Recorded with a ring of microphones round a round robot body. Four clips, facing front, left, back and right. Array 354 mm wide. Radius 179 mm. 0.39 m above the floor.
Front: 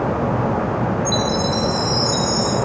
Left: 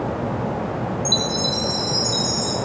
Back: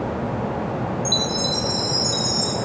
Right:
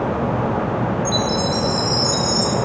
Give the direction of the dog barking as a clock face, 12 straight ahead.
I don't hear a dog barking.